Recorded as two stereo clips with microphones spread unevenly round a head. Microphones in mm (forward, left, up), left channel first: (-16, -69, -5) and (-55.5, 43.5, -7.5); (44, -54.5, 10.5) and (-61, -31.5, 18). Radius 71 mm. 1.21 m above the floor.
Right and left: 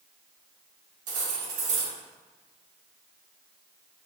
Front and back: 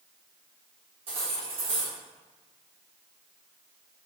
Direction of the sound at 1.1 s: 115° left.